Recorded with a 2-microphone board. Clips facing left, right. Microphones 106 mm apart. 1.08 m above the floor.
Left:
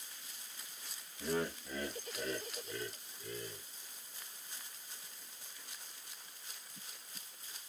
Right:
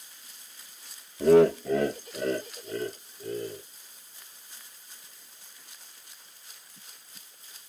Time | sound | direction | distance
1.2 | laughter | 75° right (ahead or behind) | ?